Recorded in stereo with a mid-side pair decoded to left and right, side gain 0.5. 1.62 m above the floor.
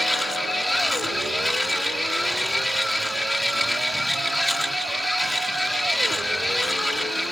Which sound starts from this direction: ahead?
A machine running, at 0.0 s.